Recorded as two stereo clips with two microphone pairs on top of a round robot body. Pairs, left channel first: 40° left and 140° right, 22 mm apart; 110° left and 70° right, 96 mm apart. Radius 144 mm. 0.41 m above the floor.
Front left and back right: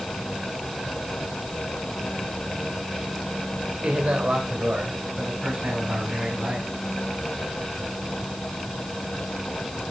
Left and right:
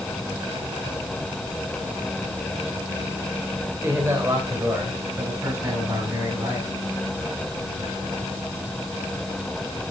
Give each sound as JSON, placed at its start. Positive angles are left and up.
{"t": 3.8, "sound": "a man speaking", "azimuth_deg": -130, "distance_m": 2.5}